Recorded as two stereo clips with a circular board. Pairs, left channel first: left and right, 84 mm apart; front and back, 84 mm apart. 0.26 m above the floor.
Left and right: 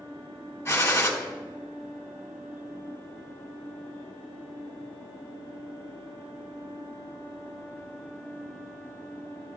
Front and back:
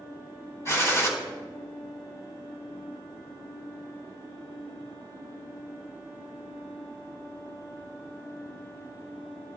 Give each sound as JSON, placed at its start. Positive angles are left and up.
{"t": 0.7, "sound": "a gunshot", "azimuth_deg": 40, "distance_m": 1.4}